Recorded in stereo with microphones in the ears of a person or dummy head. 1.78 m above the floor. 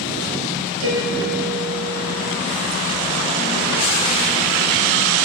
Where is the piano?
75° right (ahead or behind), 7 m.